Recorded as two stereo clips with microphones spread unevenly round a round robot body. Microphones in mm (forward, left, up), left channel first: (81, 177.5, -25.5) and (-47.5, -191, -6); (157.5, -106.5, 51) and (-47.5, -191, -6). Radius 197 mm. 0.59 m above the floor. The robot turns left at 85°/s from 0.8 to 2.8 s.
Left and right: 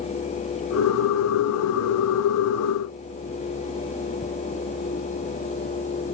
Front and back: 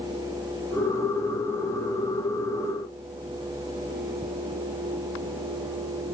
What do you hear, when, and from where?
Only background noise.